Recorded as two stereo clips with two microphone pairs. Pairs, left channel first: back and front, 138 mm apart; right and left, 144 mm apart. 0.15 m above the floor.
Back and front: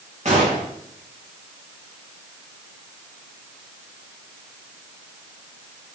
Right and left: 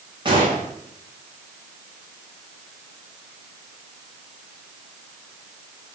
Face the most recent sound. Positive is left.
turn(degrees=35)